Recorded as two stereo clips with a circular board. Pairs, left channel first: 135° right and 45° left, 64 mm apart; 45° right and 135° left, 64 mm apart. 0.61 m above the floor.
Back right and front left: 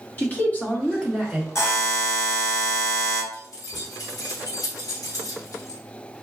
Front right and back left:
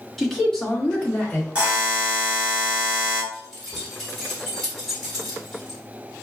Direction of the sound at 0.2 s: 130° right.